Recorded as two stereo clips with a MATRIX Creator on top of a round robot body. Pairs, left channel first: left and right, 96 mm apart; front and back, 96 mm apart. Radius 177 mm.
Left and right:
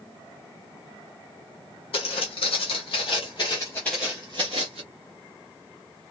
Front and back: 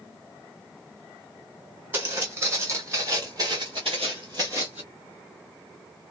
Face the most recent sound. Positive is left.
turn(degrees=-105)